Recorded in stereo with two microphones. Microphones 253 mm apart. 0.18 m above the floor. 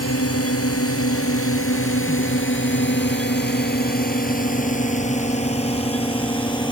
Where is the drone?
65° left (ahead or behind); by 6.7 s 15° left (ahead or behind).